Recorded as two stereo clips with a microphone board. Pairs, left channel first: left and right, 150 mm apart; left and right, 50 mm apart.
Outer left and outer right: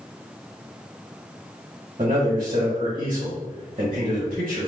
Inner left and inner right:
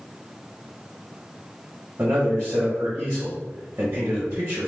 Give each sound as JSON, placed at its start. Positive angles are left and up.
{"t": 2.0, "sound": "a man speaking", "side_deg": -55, "distance_m": 1.1}